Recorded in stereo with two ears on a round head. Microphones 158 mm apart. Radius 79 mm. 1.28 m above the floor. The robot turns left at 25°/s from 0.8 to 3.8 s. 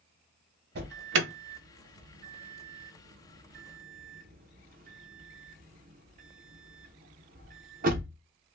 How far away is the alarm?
About 0.6 m.